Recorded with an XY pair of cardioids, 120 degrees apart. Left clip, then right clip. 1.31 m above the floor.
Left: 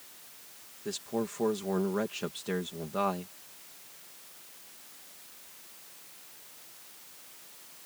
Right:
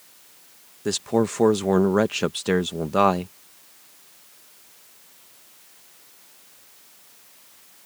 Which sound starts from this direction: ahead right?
A man speaking, at 0.8 s.